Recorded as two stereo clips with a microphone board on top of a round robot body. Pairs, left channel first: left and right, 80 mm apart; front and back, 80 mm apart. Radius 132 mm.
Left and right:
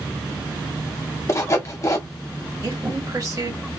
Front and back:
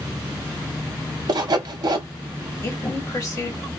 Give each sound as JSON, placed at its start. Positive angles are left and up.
{"t": 1.3, "sound": "sawing", "azimuth_deg": 145, "distance_m": 0.8}
{"t": 2.6, "sound": "a woman speaking", "azimuth_deg": -40, "distance_m": 1.7}